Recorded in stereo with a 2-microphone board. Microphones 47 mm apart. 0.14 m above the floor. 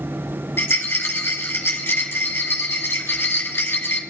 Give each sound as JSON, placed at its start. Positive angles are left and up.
{"t": 0.6, "sound": "a rattle", "side_deg": 60, "distance_m": 6.5}